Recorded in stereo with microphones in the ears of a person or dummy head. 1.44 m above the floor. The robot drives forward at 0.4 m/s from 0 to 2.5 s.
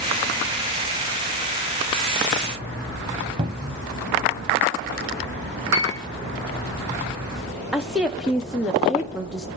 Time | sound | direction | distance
3.4 | a cupboard door | 30° right (ahead or behind) | 0.8 m
5.7 | a piano | 15° right (ahead or behind) | 1.4 m
7.7 | a woman speaking | 5° right (ahead or behind) | 0.9 m